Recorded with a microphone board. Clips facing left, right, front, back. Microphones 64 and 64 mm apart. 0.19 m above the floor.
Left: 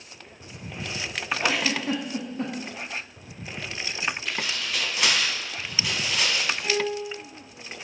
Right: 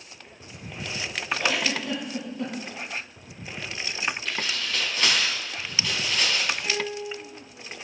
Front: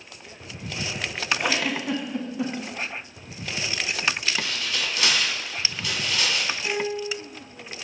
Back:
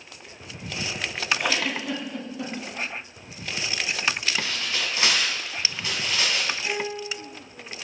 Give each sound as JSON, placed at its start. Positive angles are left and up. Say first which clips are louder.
{"t": 1.4, "sound": "a giggle", "louder": "left 1 dB, front 1 dB", "azimuth_deg": 65, "distance_m": 0.7}
{"t": 4.2, "sound": "tearing paper", "louder": "even, even", "azimuth_deg": 160, "distance_m": 1.3}
{"t": 6.6, "sound": "a piano", "louder": "left 3 dB, front 2 dB", "azimuth_deg": 80, "distance_m": 2.0}